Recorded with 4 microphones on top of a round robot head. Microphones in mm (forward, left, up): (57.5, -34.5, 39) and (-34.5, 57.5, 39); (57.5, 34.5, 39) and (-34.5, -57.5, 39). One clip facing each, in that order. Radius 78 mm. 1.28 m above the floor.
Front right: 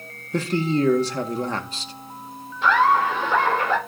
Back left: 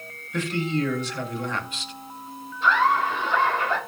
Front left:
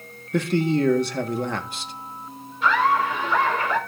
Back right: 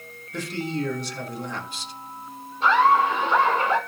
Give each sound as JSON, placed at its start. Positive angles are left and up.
{"t": 0.3, "sound": "a man speaking", "azimuth_deg": 10, "distance_m": 1.7}
{"t": 2.6, "sound": "laughter", "azimuth_deg": -75, "distance_m": 4.5}